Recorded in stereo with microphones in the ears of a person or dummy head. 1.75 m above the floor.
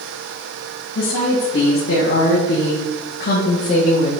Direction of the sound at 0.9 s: 45° left (ahead or behind).